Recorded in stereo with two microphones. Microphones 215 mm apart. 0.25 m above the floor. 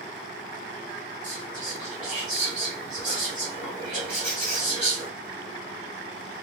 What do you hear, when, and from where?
1.2 s whispering: 35° right (ahead or behind), 1.9 m
4.1 s a squeak: 5° left (ahead or behind), 1.4 m